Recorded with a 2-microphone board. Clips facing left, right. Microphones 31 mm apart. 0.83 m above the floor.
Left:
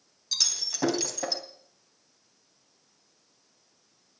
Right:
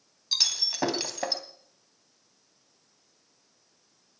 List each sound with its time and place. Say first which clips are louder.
0.3 s breaking glass: right 3 dB; 25° right (ahead or behind), 2.5 m